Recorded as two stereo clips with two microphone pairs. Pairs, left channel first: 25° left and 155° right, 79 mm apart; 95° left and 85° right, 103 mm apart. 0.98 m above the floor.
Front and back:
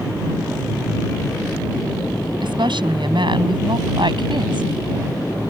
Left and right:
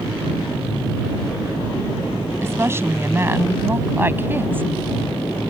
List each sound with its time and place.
2.4 s a woman speaking: 150° right; by 4.7 s 160° right